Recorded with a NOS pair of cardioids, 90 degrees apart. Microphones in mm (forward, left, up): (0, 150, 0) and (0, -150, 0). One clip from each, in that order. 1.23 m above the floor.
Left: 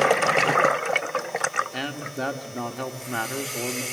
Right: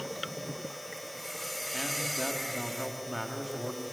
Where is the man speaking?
45° left, 1.9 m.